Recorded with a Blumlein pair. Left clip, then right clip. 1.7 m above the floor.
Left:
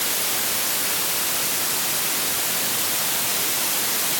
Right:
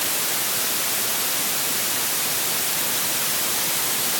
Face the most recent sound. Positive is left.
No sound to turn to.